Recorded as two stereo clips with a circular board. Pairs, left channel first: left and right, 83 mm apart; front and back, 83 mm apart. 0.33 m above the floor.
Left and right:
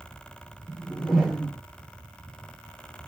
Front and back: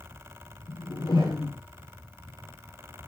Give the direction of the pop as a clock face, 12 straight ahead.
I don't hear a pop.